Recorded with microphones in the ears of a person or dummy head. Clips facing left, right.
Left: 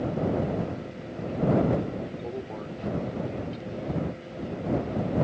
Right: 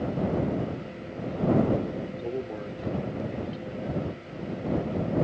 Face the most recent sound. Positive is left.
turn(degrees=-10)  # may be behind; listen again after turning